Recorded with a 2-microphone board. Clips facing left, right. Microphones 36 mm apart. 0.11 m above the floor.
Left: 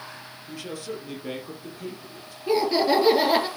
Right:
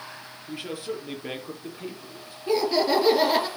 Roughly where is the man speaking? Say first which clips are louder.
Right 2 dB; right.